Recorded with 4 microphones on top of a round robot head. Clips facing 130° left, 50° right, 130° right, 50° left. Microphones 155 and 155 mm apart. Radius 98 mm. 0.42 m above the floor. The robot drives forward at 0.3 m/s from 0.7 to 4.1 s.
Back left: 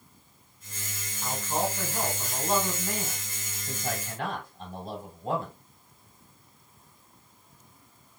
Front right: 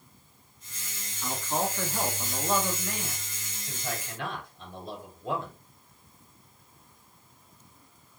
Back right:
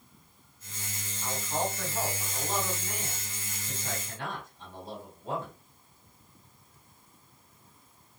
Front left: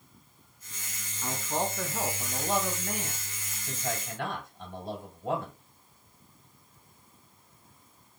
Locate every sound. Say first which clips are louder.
1.2 s a man speaking: back left 1 dB, front left 1 dB; 55° left, 2.5 m; by 5.6 s 75° left, 2.5 m